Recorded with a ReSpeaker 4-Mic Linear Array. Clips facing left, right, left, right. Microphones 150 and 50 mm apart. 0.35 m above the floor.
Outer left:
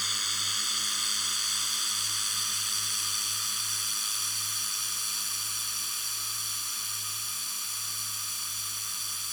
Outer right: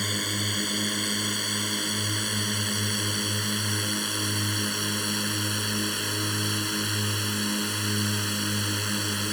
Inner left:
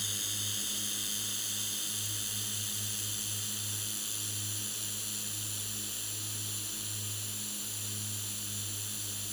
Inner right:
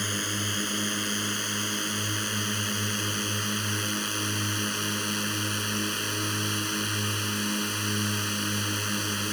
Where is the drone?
55° right (ahead or behind); by 9.3 s 70° right (ahead or behind).